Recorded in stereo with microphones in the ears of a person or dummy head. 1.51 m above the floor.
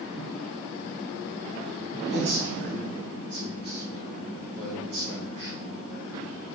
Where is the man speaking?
55° right (ahead or behind), 1.8 m.